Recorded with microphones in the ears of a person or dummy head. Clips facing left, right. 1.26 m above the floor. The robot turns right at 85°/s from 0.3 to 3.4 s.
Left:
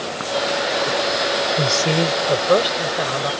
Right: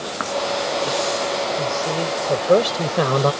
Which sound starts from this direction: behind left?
A man speaking, at 1.6 s.